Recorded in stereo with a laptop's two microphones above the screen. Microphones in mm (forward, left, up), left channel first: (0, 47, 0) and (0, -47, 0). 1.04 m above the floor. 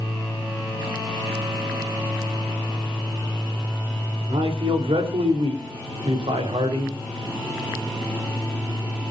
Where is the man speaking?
75° right (ahead or behind), 4 m; by 6.9 s 80° right, 5 m.